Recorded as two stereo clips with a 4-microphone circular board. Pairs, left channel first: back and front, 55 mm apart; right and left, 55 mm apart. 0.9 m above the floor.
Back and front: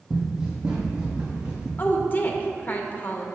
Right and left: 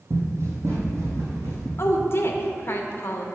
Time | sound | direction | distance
0.1 | running footsteps | 80° left | 1.4 m
1.8 | a woman speaking | 125° right | 0.7 m